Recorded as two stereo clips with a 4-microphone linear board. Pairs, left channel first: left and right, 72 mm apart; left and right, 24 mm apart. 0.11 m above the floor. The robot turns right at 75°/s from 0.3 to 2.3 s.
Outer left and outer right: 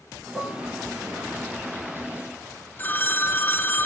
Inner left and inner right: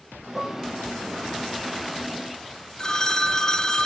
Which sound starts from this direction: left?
A phone ringing, at 2.8 s.